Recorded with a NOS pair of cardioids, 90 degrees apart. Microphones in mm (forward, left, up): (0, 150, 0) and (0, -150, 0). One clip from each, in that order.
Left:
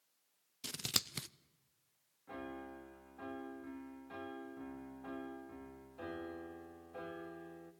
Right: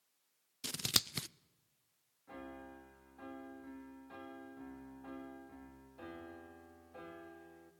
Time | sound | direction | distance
0.6 | scissors | 15° right | 0.5 m
2.3 | a piano | 15° left | 2.5 m